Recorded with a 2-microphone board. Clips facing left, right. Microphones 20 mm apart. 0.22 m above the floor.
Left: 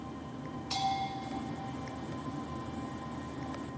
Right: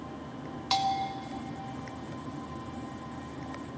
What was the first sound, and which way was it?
A bell, 60° right (ahead or behind).